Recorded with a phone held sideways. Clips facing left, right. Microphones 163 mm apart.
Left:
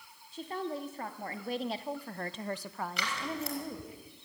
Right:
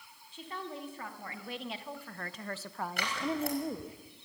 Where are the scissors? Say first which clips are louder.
Right 6 dB; 55° right (ahead or behind), 5.5 m.